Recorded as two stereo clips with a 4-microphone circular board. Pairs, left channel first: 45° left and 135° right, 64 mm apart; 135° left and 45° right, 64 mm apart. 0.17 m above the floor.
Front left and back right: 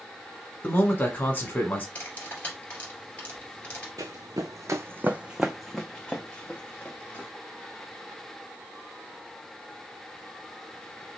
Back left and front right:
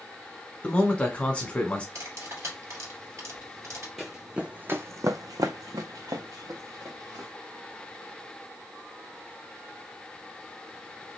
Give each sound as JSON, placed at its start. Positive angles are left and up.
{"t": 0.6, "sound": "a man speaking", "azimuth_deg": 75, "distance_m": 1.2}
{"t": 1.9, "sound": "cutlery clinking", "azimuth_deg": -20, "distance_m": 2.0}
{"t": 4.0, "sound": "running footsteps", "azimuth_deg": -135, "distance_m": 0.7}